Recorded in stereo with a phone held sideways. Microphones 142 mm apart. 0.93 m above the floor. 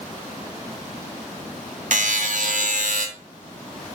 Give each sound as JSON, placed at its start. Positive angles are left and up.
{"t": 1.9, "sound": "a buzzer", "side_deg": -65, "distance_m": 1.5}